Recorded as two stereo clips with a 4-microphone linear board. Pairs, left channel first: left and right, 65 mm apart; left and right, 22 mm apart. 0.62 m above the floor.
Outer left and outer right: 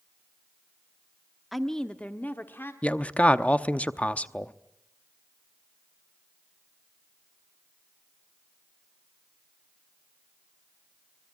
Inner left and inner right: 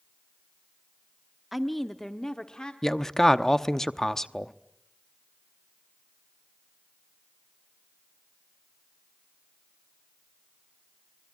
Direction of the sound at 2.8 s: 20° left (ahead or behind).